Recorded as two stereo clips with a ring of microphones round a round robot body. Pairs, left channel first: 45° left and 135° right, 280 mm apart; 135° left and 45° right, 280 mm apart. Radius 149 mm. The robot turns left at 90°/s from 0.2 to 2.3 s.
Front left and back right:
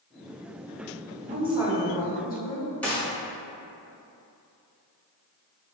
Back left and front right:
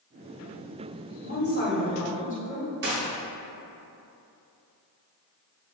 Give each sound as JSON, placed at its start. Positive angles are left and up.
{"t": 1.2, "sound": "a woman speaking", "azimuth_deg": -175, "distance_m": 1.1}
{"t": 2.8, "sound": "a gunshot", "azimuth_deg": -35, "distance_m": 1.1}